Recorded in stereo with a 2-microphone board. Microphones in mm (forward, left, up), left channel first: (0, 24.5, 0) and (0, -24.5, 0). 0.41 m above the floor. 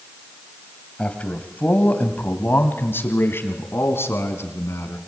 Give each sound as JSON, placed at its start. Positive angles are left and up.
{"t": 1.0, "sound": "a man speaking", "side_deg": 25, "distance_m": 1.9}